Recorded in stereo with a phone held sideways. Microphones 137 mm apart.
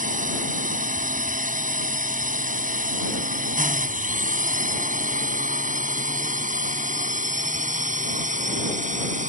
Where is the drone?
80° right; by 9.3 s 70° right (ahead or behind).